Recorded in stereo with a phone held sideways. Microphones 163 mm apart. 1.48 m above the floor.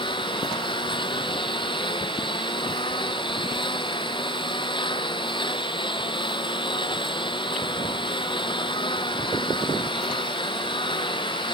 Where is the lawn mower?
30° left (ahead or behind).